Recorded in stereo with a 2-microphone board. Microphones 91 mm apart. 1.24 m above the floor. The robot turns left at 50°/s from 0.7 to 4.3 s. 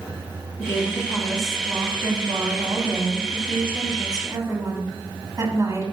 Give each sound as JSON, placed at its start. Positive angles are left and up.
{"t": 0.6, "sound": "a woman speaking", "azimuth_deg": 40, "distance_m": 2.0}